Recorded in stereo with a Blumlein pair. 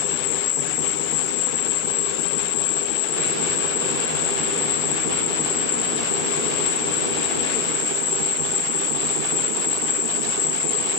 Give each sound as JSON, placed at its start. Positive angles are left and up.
{"t": 0.0, "sound": "an insect", "azimuth_deg": 40, "distance_m": 3.0}